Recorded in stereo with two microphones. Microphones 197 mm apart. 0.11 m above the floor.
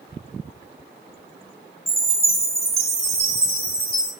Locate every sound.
1.9 s a chime: 15° right (ahead or behind), 1.5 m